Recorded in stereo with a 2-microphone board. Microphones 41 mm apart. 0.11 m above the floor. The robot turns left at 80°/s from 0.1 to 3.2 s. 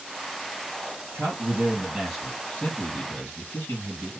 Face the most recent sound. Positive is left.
turn(degrees=100)